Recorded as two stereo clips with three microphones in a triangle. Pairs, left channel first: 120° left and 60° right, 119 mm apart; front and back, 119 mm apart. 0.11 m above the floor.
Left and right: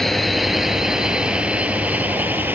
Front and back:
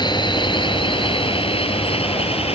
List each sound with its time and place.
0.0 s a drone: 30° left; by 2.6 s 10° left